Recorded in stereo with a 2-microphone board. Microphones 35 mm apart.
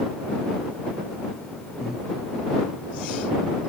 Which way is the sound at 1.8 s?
5° left (ahead or behind).